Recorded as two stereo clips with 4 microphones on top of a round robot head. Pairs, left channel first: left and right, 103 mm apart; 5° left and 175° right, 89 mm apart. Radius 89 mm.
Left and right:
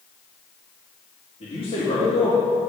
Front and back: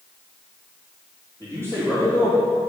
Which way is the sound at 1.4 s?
70° left.